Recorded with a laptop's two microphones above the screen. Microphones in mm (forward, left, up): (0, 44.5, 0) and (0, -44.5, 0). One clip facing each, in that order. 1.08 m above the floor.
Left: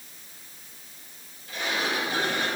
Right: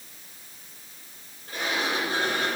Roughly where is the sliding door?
Right.